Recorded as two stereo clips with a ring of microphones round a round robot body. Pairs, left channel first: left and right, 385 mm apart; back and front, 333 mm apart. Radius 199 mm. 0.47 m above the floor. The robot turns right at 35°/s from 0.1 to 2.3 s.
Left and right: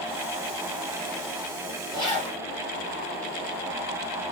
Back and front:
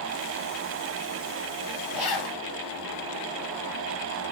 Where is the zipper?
165° left, 2.5 m; by 2.4 s straight behind, 2.5 m.